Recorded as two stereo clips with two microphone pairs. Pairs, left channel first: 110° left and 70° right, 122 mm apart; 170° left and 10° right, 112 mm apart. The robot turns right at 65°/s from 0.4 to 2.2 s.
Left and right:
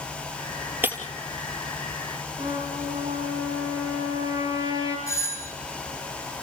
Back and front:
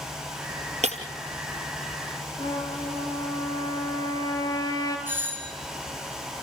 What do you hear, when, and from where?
0.8 s breaking glass: 5° left, 2.5 m; by 1.0 s 15° left, 2.5 m
2.4 s a trumpet: 130° right, 4 m
5.1 s a doorbell: 55° left, 2.5 m